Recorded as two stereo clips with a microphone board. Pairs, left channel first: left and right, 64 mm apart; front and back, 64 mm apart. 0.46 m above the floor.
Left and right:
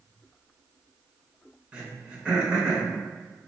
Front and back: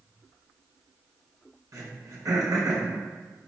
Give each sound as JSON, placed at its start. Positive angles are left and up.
{"t": 1.7, "sound": "throat clearing", "azimuth_deg": -160, "distance_m": 0.7}